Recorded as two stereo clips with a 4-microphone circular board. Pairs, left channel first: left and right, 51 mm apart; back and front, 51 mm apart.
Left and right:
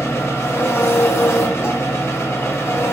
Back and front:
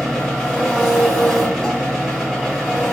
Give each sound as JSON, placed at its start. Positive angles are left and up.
{"t": 0.0, "sound": "an engine running", "azimuth_deg": 80, "distance_m": 2.0}